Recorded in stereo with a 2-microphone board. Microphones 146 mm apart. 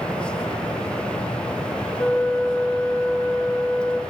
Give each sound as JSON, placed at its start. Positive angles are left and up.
{"t": 2.0, "sound": "a flute", "side_deg": 10, "distance_m": 3.5}